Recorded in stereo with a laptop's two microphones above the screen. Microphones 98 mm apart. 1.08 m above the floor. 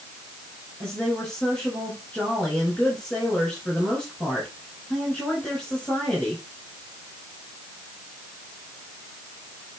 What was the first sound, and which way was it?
A woman speaking, 10° left (ahead or behind).